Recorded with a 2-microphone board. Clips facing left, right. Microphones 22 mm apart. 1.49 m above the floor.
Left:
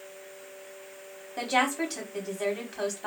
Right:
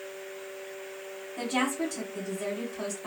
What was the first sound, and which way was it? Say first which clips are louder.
A woman speaking: left 3 dB; 85° left.